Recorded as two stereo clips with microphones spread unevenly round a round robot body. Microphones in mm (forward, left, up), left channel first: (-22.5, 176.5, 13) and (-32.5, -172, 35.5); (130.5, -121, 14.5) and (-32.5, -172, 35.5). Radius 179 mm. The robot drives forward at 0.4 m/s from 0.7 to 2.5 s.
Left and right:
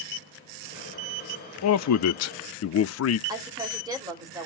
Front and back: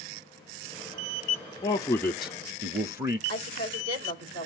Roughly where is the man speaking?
Ahead left.